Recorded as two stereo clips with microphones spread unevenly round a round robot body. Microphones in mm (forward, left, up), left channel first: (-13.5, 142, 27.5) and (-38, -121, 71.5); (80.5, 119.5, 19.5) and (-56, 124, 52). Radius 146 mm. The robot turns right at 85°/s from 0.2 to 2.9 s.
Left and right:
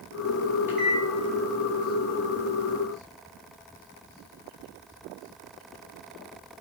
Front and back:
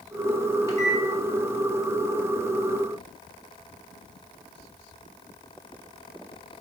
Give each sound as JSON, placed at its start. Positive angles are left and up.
{"t": 0.7, "sound": "a microwave", "azimuth_deg": -5, "distance_m": 0.9}